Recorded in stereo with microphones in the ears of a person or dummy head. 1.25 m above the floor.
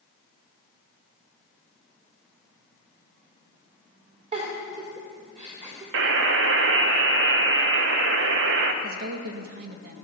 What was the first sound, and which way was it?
A giggle, 35° right (ahead or behind).